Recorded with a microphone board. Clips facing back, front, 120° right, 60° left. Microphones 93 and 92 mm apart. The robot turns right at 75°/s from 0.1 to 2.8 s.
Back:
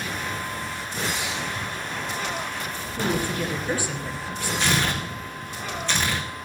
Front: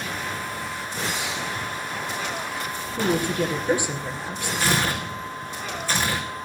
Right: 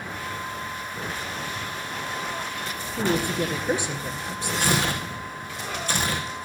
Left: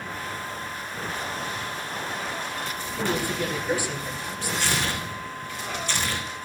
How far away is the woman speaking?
About 2.5 m.